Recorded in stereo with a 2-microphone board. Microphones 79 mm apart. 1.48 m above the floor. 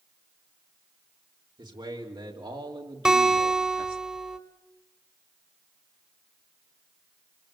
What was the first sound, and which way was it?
A man speaking, 80° right.